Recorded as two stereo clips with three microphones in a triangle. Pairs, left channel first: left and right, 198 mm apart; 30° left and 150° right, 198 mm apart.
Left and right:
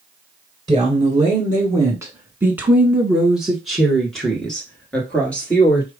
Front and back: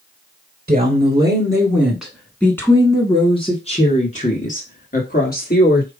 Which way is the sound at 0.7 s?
135° right.